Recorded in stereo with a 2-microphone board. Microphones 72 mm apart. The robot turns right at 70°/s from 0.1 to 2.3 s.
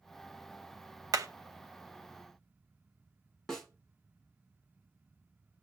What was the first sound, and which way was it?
Hammering, 60° right (ahead or behind).